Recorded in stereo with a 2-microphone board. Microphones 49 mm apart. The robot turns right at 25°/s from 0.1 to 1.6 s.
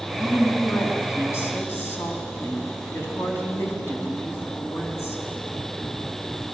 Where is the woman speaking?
85° left, 5 m; by 5.2 s 120° left, 5 m.